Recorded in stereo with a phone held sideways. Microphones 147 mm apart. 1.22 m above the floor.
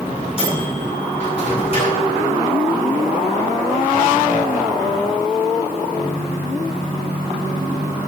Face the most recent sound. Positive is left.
turn(degrees=40)  # may be behind; listen again after turning